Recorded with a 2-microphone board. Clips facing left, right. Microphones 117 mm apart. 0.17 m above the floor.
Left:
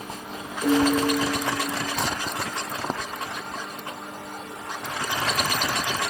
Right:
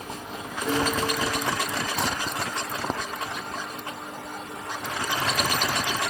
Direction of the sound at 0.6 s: 70° left (ahead or behind).